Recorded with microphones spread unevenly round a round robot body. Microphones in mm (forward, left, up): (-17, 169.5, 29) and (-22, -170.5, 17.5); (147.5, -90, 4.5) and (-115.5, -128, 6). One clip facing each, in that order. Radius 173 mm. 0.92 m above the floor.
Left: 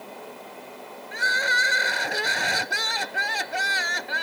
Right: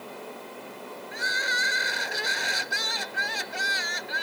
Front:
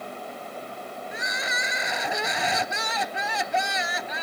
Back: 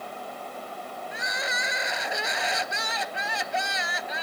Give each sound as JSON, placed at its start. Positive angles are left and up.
{"t": 1.1, "sound": "crying", "azimuth_deg": 50}